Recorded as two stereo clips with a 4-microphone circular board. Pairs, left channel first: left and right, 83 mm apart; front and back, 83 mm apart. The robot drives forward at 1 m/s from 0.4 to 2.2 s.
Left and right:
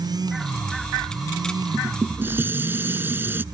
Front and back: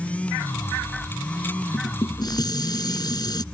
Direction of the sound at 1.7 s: 20° right.